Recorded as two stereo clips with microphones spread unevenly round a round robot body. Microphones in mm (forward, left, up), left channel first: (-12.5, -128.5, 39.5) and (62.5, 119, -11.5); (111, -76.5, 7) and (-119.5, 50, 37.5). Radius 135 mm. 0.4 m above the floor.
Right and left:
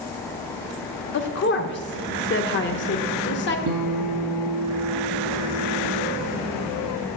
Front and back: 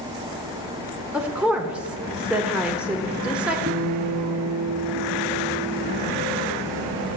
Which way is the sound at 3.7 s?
90° left.